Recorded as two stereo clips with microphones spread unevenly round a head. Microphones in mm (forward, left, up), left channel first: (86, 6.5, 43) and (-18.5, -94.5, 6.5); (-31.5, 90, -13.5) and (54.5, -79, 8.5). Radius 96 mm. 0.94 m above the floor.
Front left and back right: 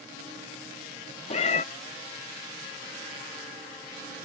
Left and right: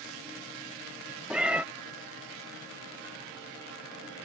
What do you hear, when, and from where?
1.3 s a cat meowing: 15° left